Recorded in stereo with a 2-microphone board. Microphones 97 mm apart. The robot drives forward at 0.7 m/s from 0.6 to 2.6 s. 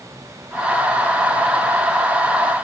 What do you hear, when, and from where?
Only background noise.